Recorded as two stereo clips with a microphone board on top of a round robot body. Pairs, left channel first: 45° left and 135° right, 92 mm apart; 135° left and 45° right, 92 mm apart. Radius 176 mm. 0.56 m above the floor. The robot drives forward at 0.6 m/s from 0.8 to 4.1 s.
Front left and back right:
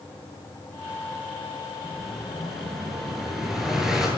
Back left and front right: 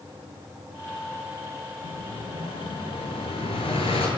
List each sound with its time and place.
1.8 s an explosion: 135° left, 7.5 m; by 4.1 s 140° left, 8.5 m